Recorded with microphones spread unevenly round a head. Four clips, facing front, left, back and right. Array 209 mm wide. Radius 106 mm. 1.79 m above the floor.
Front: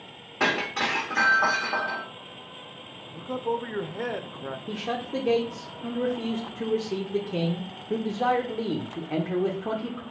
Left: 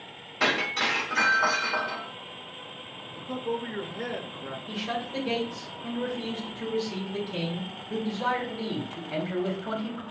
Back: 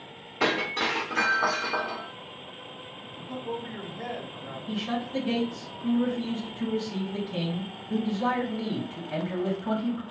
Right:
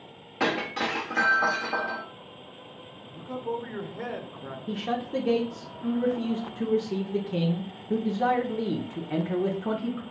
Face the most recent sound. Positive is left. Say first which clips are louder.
# right 4 dB, back 1 dB
turn(degrees=-40)